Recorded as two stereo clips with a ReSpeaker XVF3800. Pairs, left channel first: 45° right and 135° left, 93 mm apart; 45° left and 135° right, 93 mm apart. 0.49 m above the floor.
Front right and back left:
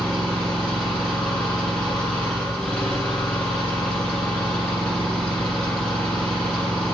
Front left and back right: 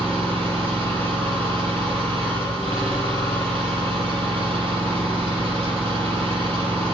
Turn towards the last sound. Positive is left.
turn(degrees=-125)